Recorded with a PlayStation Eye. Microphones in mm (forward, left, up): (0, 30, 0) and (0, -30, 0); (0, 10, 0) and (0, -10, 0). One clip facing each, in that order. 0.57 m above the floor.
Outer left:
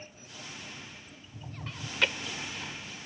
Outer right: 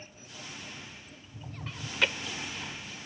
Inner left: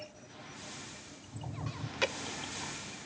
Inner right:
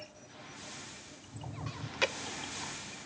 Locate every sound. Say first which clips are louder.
1.7 s chewing: even, inner right 1 dB; 5° right (ahead or behind)